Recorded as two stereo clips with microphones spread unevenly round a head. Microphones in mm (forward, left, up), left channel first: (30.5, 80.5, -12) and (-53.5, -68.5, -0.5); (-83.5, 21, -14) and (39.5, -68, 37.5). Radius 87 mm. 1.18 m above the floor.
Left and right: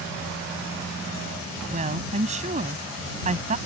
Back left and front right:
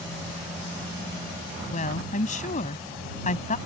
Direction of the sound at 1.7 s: 170° right.